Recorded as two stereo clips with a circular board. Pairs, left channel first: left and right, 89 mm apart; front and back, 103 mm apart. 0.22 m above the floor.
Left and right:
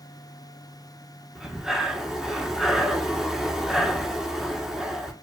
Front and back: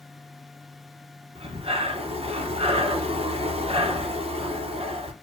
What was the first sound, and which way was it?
Breathing, 175° right.